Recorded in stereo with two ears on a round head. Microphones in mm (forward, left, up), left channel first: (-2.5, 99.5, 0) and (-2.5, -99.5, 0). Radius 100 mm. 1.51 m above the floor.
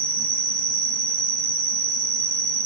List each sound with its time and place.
0.0 s an insect: 65° right (ahead or behind), 1.1 m